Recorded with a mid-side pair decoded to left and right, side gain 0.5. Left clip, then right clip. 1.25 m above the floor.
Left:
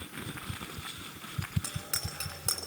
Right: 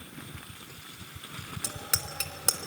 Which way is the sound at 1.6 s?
50° right.